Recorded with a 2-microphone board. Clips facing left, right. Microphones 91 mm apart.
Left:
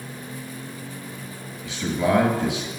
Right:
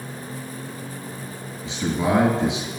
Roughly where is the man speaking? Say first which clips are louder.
Even; right.